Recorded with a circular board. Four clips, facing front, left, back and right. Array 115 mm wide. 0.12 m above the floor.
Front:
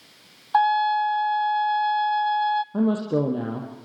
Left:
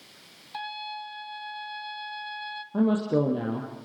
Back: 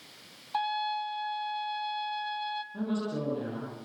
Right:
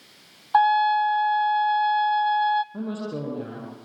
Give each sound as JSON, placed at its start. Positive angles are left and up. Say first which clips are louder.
{"t": 0.5, "sound": "a trumpet", "louder": "right 19 dB, front 12 dB", "azimuth_deg": -55, "distance_m": 0.6}
{"t": 2.7, "sound": "a woman speaking", "louder": "left 8 dB, front 10 dB", "azimuth_deg": 30, "distance_m": 4.0}